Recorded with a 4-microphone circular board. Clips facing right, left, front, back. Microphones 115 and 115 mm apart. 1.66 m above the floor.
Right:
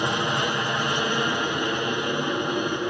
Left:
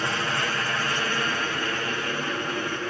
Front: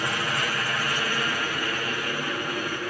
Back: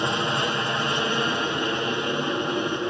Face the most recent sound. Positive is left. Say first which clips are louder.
# right 3 dB, back 4 dB
turn(degrees=-140)